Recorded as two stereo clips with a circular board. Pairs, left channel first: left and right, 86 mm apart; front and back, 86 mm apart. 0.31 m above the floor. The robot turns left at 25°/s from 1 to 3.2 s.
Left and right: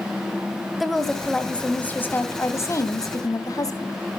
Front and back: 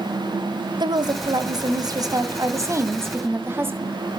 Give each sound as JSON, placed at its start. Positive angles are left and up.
{"t": 0.8, "sound": "a woman speaking", "azimuth_deg": 175, "distance_m": 2.0}